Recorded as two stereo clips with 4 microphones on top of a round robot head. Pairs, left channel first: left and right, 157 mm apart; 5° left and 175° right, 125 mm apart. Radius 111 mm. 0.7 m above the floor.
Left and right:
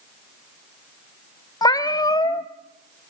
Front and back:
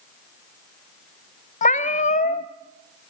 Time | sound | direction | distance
1.6 | a cat meowing | 25° left | 1.1 m